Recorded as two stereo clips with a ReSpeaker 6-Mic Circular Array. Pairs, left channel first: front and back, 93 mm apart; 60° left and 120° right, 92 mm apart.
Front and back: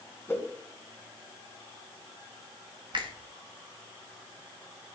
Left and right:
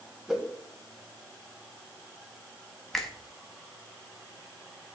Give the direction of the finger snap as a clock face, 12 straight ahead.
7 o'clock.